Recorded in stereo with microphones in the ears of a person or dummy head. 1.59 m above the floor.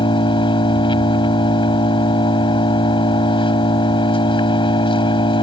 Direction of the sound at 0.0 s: 25° left (ahead or behind).